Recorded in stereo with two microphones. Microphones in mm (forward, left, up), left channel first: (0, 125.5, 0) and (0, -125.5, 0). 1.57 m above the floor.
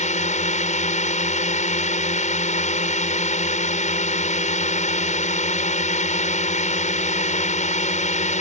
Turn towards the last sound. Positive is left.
turn(degrees=30)  # may be behind; listen again after turning